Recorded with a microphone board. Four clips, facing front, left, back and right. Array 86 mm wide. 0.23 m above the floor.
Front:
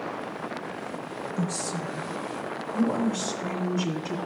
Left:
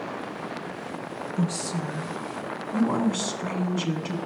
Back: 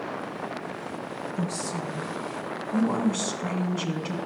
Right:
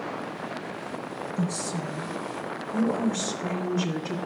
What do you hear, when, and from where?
1.4 s a woman speaking: 85° left, 2.5 m; by 4.2 s 135° left, 2 m